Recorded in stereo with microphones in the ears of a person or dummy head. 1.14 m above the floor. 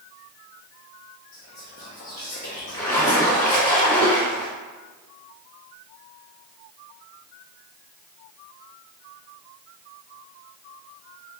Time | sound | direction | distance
1.3 | whispering | 50° left (ahead or behind) | 0.5 m
2.7 | a splash | 30° left (ahead or behind) | 1.3 m